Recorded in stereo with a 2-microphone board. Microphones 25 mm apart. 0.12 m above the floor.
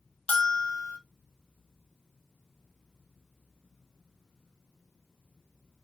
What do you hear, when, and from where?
0.3 s a bell: 75° left (ahead or behind), 0.9 m